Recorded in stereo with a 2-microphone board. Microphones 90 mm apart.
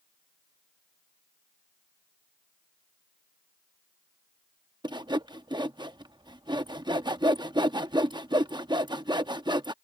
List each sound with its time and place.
4.8 s sawing: 55° right (ahead or behind)